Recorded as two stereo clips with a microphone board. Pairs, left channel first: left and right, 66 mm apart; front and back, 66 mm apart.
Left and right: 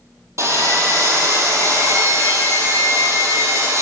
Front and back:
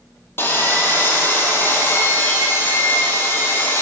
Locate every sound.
0.4 s sawing: 55° right, 1.2 m